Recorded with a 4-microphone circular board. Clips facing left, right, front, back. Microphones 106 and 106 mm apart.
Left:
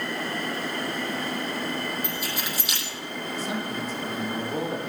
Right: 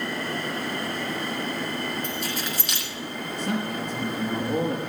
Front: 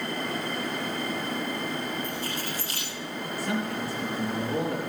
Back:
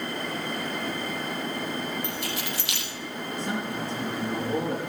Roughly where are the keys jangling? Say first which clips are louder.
Right 1 dB, even; behind.